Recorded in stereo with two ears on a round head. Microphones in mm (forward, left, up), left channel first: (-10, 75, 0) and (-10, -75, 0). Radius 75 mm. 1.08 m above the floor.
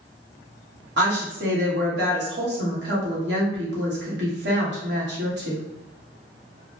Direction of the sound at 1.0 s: 75° right (ahead or behind).